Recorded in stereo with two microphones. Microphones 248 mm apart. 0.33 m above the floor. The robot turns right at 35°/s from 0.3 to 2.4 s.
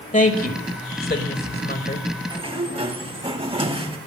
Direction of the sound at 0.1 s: 30° left (ahead or behind).